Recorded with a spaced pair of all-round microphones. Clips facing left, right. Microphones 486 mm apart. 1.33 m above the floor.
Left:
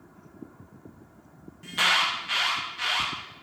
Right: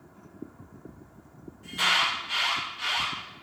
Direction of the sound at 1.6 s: 85° left.